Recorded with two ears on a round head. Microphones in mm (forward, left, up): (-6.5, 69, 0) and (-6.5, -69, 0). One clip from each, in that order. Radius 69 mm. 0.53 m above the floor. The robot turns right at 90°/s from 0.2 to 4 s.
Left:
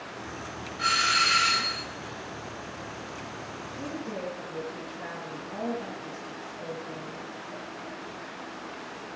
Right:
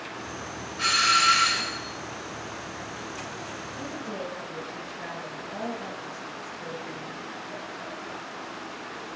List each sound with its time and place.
0.8 s a doorbell: 90° right, 4 m; by 1.9 s 5° left, 4 m
3.8 s a woman speaking: 40° right (ahead or behind), 6 m; by 7.2 s 20° right (ahead or behind), 6 m